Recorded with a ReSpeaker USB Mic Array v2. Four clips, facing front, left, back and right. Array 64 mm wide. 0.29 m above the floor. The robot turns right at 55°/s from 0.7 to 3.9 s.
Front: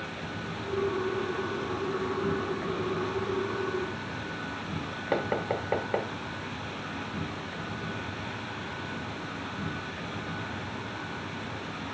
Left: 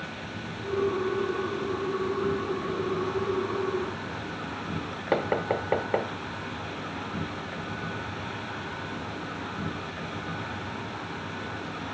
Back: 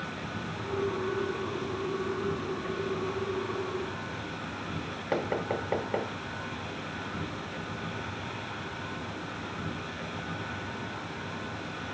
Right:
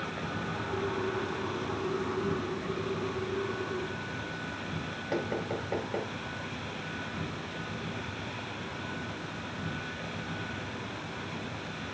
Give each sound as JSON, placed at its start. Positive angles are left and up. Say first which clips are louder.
{"t": 0.0, "sound": "an insect", "louder": "right 2 dB, even", "azimuth_deg": -100, "distance_m": 6.5}
{"t": 5.1, "sound": "knocking", "louder": "left 7 dB, front 1 dB", "azimuth_deg": 75, "distance_m": 1.2}